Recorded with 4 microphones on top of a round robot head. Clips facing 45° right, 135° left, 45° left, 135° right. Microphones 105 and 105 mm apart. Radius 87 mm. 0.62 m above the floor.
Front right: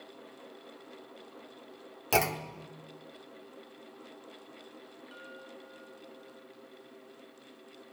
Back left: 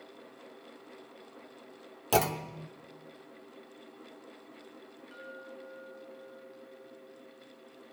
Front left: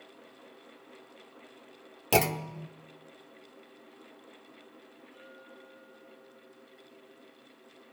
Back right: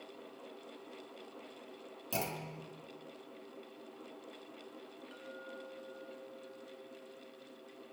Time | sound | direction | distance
2.1 | a clunk | 55° left | 0.8 m
5.1 | a clink | 125° right | 5 m